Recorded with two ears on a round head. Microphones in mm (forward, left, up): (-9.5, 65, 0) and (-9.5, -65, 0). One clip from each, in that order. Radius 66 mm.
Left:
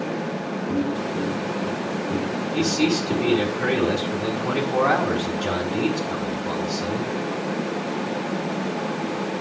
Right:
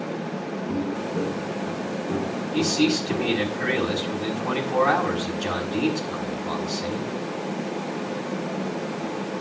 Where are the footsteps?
80° right, 4.5 m; by 3.5 s 65° right (ahead or behind), 7.5 m.